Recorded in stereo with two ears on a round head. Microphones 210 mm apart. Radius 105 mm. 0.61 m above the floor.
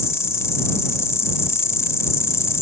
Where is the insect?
15° left (ahead or behind).